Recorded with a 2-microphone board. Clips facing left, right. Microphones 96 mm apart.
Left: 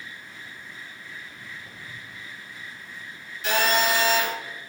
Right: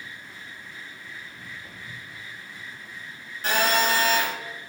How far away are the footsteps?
About 4 m.